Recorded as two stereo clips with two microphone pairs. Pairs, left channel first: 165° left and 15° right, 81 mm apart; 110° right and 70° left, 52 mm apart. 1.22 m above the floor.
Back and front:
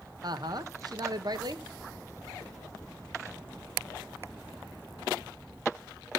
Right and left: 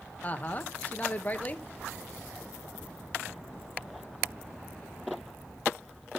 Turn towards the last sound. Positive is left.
turn(degrees=-50)